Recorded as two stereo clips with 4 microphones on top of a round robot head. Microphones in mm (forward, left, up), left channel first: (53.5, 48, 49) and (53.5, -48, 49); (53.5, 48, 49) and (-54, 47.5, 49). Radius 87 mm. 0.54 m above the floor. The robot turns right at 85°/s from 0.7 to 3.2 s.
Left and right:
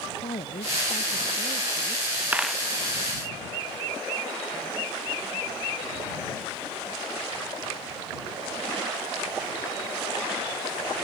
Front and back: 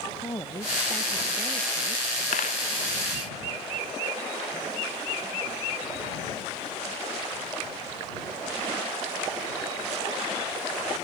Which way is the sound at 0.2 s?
60° left.